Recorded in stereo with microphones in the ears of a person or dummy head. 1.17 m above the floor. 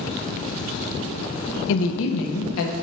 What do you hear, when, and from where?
1.7 s a woman speaking: 85° left, 0.6 m; by 2.7 s 90° left, 1.1 m